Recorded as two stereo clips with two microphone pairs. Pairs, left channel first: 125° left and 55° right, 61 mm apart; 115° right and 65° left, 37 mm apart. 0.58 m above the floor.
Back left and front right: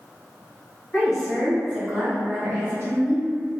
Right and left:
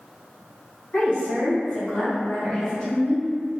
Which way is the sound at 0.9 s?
155° right.